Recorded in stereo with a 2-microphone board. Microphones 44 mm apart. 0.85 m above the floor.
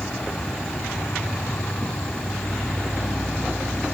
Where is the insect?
75° left (ahead or behind), 1.3 m.